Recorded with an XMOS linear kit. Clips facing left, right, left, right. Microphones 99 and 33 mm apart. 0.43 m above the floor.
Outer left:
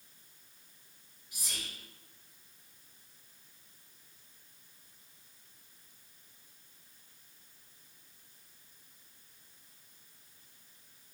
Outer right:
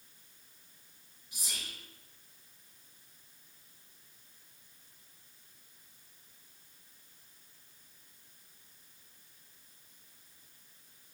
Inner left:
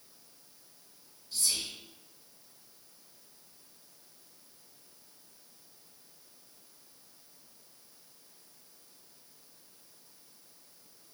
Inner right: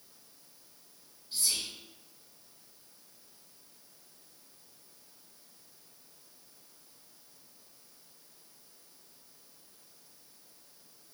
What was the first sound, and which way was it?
Whispering, 25° right (ahead or behind).